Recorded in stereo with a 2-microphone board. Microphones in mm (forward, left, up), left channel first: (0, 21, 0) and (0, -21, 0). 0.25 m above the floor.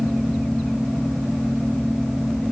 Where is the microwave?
I don't hear a microwave.